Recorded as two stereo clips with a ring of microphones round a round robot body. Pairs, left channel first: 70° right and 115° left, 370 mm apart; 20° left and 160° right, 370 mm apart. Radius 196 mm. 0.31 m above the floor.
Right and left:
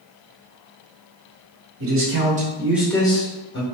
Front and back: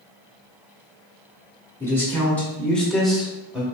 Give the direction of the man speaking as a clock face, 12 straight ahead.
9 o'clock.